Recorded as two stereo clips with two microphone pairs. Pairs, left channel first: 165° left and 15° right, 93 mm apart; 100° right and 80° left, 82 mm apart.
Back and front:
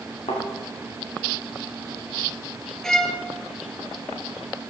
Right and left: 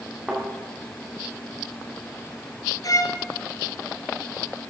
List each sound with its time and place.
0.3 s a thud: 160° left, 6.5 m
2.8 s a violin: 115° right, 1.2 m